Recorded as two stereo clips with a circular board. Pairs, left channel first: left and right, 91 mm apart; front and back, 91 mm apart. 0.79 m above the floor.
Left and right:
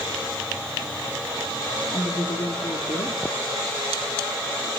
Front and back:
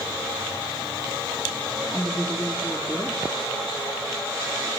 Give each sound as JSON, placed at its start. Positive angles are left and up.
{"t": 1.9, "sound": "a woman speaking", "azimuth_deg": 80, "distance_m": 1.5}